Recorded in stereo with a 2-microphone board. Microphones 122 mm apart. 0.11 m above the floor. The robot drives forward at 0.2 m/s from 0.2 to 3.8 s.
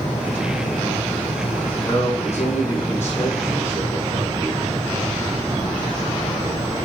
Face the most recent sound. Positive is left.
turn(degrees=20)  # may be behind; listen again after turning